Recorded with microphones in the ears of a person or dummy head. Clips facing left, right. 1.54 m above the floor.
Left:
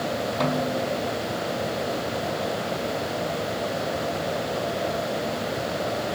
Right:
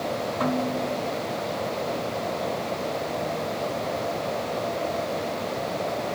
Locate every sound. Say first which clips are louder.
0.4 s a snare drum: even; 60° left (ahead or behind), 4.5 m